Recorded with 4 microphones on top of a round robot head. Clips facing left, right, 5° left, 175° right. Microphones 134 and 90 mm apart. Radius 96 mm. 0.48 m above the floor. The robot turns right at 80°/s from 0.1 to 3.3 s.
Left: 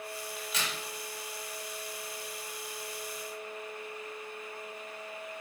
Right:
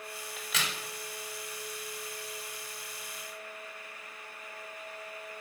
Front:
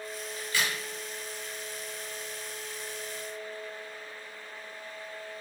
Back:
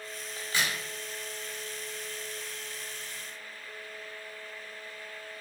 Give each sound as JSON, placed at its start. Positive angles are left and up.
{"t": 0.4, "sound": "a crack", "azimuth_deg": -125, "distance_m": 0.8}